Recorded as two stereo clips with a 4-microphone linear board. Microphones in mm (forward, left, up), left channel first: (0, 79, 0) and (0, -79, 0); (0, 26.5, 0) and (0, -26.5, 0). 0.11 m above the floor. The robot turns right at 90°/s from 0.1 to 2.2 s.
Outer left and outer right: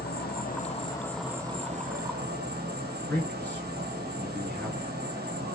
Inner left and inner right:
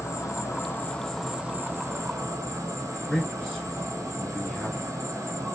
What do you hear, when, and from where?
0.0 s an insect: 80° left, 1.0 m; by 5.6 s 90° right, 1.0 m
3.1 s a man speaking: 10° left (ahead or behind), 1.4 m